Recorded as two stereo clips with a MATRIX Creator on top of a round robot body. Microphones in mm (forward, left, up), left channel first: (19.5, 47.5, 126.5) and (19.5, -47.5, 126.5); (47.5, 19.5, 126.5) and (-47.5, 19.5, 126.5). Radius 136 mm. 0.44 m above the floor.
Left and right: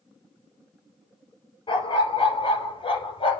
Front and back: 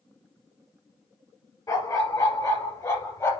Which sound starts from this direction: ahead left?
A dog barking, at 1.7 s.